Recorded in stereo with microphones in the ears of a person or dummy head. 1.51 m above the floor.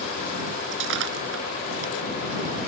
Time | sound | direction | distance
0.7 | breaking glass | 70° right (ahead or behind) | ?